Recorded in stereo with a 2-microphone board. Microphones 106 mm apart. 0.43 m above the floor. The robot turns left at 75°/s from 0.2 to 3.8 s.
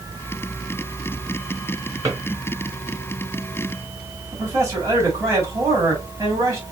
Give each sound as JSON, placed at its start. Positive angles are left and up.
{"t": 2.0, "sound": "a drawer", "side_deg": -30, "distance_m": 3.5}
{"t": 4.3, "sound": "a man speaking", "side_deg": -30, "distance_m": 3.5}